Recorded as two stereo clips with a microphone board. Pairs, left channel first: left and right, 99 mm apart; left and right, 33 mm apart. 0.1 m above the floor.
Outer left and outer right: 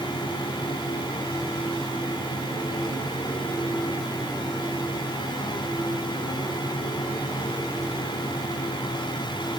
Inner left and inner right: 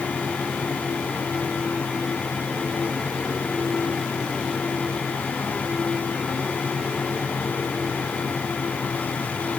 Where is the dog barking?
I don't hear a dog barking.